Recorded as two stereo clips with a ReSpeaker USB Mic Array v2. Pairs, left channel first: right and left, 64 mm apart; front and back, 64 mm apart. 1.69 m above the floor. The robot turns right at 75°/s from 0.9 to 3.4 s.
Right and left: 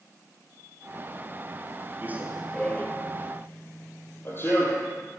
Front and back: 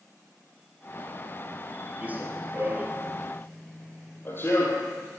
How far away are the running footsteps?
About 2 m.